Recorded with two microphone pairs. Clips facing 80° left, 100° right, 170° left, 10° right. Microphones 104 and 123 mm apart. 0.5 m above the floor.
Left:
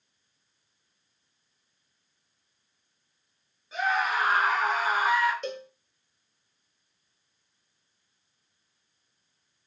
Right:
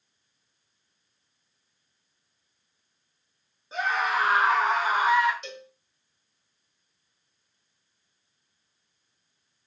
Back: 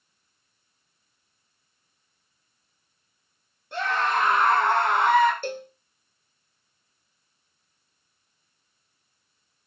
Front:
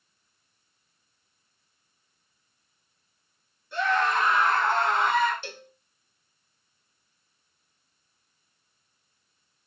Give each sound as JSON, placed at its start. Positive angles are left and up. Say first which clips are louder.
{"t": 3.7, "sound": "a scream", "louder": "even, even", "azimuth_deg": -160, "distance_m": 9.0}
{"t": 5.4, "sound": "a cowbell", "louder": "left 7 dB, back 11 dB", "azimuth_deg": 125, "distance_m": 1.0}